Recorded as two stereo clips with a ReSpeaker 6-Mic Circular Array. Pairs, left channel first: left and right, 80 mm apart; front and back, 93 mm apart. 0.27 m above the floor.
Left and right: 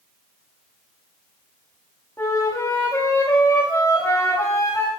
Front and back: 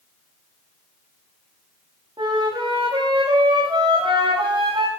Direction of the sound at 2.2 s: 145° left.